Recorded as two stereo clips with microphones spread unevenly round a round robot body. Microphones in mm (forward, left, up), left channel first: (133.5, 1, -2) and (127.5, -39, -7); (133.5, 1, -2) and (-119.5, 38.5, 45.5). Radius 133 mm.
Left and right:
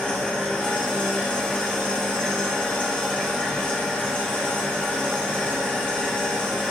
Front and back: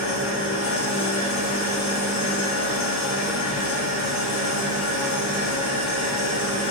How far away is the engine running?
About 1.5 m.